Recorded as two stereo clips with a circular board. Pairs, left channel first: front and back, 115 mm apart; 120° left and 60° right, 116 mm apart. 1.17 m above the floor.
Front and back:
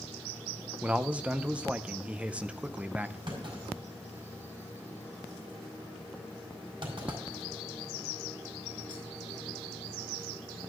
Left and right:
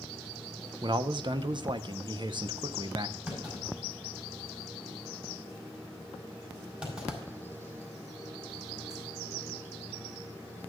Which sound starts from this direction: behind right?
A clunk, at 3.3 s.